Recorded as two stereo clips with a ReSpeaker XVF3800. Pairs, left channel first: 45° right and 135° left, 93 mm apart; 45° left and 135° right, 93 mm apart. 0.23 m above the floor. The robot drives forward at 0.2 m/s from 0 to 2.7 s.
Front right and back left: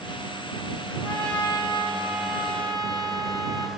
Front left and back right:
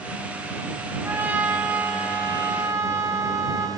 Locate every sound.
1.0 s a trumpet: 160° left, 1.6 m; by 3.7 s 165° left, 1.8 m